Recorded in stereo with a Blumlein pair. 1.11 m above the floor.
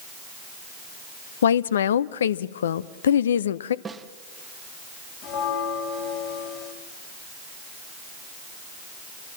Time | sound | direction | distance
1.4 | a woman speaking | 65° left | 0.7 m
3.9 | a snare drum | 15° right | 1.0 m
5.2 | a bell | 45° left | 4 m